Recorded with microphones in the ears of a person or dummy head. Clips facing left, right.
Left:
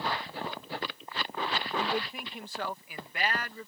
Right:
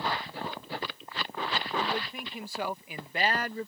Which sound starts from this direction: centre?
A man speaking, at 1.8 s.